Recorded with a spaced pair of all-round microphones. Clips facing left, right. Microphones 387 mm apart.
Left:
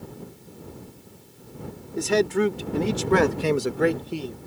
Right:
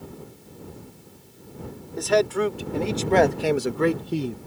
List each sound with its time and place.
2.0 s a man speaking: 40° left (ahead or behind); by 4.4 s 45° right (ahead or behind)